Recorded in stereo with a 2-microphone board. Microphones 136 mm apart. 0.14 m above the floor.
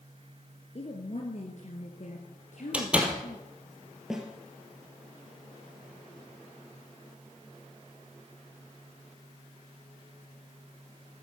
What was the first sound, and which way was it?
A woman speaking, 50° left (ahead or behind).